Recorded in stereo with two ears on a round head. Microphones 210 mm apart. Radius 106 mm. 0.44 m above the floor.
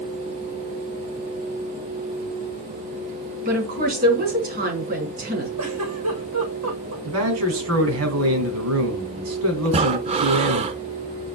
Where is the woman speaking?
40° right (ahead or behind), 4 m.